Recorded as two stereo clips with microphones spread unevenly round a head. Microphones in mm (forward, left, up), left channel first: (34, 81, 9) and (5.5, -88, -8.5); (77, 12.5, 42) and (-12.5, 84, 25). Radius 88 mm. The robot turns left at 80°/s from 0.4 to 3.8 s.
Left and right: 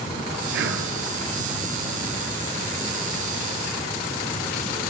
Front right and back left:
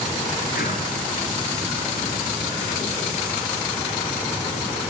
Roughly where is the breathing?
Right.